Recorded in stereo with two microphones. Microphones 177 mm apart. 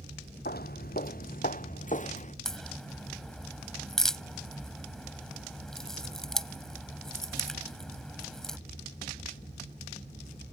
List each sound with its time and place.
0.5 s footsteps: 65° left (ahead or behind); by 2.4 s 40° left (ahead or behind)
2.5 s a crack: 5° left (ahead or behind)